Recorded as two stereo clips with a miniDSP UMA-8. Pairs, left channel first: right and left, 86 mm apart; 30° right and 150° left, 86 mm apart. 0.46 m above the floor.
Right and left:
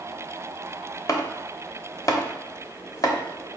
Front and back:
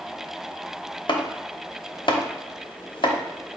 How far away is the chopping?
About 0.6 m.